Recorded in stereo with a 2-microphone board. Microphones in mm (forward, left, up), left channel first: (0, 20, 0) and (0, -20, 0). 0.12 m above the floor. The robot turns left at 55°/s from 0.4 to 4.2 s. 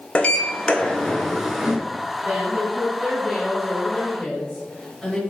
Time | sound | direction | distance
0.1 | a sliding door | 55° left | 0.5 m
2.2 | a woman speaking | 20° right (ahead or behind) | 1.1 m